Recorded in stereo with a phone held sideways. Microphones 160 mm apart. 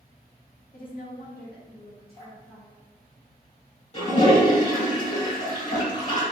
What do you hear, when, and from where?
0.7 s a woman speaking: 55° left (ahead or behind), 0.7 m; by 2.8 s 50° left (ahead or behind), 1.1 m
2.2 s dripping: 60° left (ahead or behind), 1.3 m
3.9 s a toilet flushing: 45° left (ahead or behind), 1.4 m